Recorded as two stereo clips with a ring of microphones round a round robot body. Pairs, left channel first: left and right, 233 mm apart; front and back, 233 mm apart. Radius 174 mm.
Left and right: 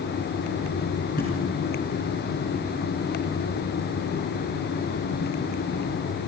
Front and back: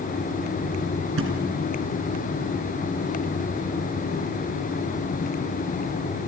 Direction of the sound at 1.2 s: 155° left.